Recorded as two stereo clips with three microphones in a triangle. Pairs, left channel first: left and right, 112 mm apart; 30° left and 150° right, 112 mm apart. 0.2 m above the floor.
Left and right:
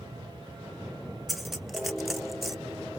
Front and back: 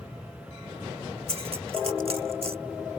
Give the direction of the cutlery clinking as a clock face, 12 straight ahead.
6 o'clock.